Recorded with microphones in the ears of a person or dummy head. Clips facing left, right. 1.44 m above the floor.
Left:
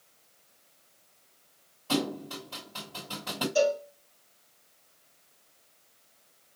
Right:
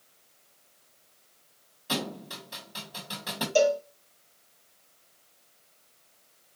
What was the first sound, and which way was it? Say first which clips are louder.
A thud: left 4 dB; 20° right (ahead or behind).